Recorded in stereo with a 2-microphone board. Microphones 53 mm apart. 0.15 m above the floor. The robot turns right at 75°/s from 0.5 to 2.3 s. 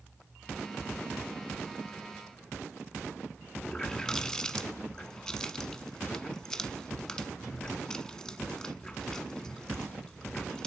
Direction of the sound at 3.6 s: 15° left (ahead or behind).